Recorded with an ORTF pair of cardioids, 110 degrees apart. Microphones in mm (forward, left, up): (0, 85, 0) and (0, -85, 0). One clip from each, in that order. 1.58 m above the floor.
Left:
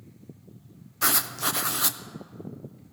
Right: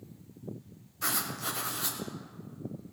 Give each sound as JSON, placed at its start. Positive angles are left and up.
{"t": 1.0, "sound": "writing", "azimuth_deg": 50, "distance_m": 1.0}